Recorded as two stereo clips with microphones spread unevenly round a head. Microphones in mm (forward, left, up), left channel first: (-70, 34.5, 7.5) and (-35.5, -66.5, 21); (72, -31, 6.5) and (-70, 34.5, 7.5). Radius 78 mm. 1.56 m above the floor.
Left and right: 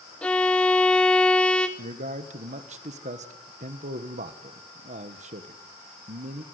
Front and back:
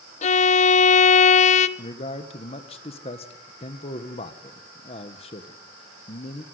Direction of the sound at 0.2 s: 25° left.